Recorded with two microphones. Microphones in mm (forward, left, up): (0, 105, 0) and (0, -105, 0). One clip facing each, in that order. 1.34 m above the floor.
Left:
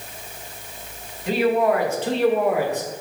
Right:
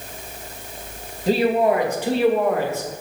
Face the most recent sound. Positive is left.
turn(degrees=20)  # may be behind; listen again after turning